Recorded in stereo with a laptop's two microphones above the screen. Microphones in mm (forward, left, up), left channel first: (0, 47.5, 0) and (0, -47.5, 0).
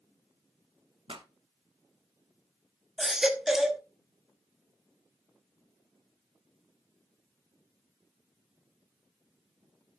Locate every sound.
1.1 s a pop: 70° right (ahead or behind), 1.3 m
3.0 s a baby crying: 5° right (ahead or behind), 1.0 m